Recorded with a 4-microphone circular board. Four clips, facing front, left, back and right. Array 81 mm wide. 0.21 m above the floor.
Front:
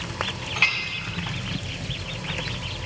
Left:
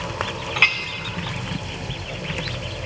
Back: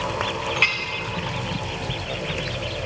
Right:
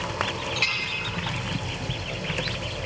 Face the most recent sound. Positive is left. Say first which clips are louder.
# left 7 dB, front 2 dB
turn(degrees=95)